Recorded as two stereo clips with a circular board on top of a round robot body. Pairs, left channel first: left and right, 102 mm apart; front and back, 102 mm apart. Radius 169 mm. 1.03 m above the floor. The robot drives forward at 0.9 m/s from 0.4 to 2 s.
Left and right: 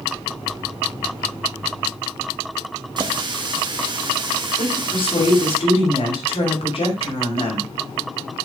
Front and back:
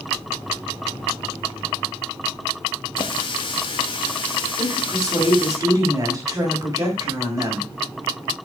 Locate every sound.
3.0 s a running tap: 45° right, 1.2 m
4.6 s a woman speaking: 120° left, 5 m